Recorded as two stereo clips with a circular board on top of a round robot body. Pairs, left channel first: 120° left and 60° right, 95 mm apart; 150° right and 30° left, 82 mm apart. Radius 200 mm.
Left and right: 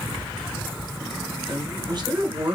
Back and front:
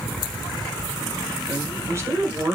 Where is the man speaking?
25° right, 2 m.